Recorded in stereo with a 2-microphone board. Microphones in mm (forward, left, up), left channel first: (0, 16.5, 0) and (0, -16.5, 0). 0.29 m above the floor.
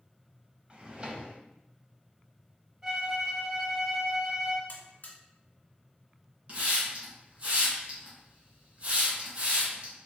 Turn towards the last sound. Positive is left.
turn(degrees=-40)  # may be behind; listen again after turning